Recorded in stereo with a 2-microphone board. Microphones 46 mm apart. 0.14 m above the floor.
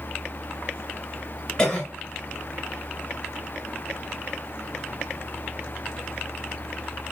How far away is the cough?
About 1.9 m.